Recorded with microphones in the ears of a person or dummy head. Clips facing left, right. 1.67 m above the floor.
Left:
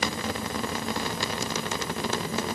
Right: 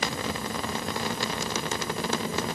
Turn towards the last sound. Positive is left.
No sound to turn to.